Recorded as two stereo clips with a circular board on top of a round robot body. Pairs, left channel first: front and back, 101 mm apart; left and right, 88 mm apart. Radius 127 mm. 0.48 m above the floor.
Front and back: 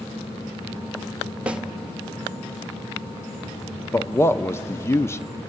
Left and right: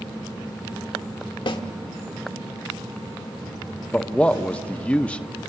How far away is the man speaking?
About 0.8 m.